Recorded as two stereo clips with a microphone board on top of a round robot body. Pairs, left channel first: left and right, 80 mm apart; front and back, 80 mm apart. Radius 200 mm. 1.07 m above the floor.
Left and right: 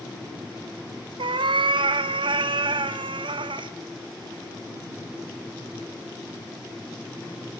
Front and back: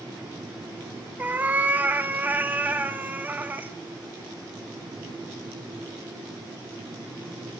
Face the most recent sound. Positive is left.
turn(degrees=-110)